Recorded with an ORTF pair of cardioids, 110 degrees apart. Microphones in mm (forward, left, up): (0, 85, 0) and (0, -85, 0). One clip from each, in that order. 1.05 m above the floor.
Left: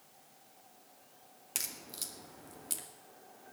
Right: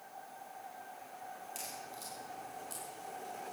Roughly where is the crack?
Ahead left.